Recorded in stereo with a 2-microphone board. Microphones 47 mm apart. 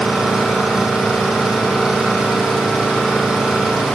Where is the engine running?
15° right (ahead or behind), 4.5 m.